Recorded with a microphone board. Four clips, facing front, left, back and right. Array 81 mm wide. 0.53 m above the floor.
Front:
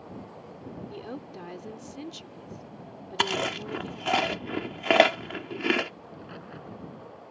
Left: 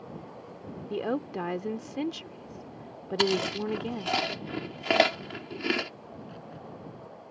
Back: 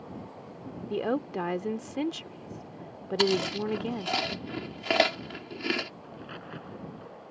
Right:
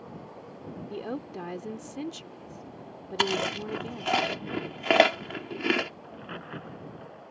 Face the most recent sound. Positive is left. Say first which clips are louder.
# right 3 dB, even
turn(degrees=-100)